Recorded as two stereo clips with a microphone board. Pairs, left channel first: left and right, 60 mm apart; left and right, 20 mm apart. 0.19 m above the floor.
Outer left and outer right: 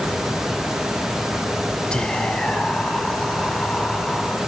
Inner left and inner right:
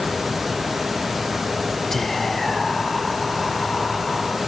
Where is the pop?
I don't hear a pop.